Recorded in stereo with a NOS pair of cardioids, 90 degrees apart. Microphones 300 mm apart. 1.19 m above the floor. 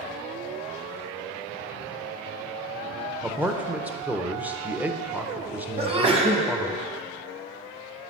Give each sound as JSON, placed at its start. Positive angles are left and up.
{"t": 3.2, "sound": "a man speaking", "azimuth_deg": -5, "distance_m": 0.8}
{"t": 5.8, "sound": "a sneeze", "azimuth_deg": -20, "distance_m": 1.3}